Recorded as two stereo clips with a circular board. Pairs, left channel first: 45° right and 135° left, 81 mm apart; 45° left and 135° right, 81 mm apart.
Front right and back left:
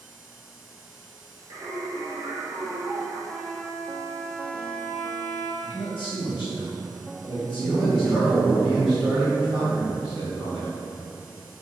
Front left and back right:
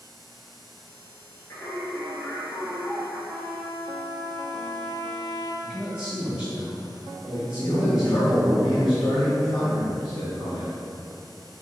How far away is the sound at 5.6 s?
About 1.3 m.